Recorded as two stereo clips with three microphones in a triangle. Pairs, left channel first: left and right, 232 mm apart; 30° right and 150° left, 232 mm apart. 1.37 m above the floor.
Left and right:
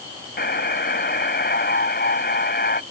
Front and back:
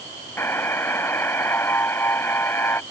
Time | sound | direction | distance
0.4 | a buzzer | 50° left | ?